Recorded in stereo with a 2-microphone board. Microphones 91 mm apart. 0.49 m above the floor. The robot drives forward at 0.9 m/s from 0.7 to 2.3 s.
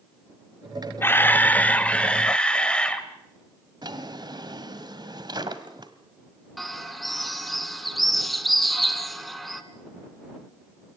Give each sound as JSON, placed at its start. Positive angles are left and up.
{"t": 1.0, "sound": "a camera shutter", "side_deg": 25, "distance_m": 0.8}
{"t": 3.8, "sound": "a drawer", "side_deg": -50, "distance_m": 1.7}
{"t": 6.6, "sound": "a bird", "side_deg": 0, "distance_m": 1.6}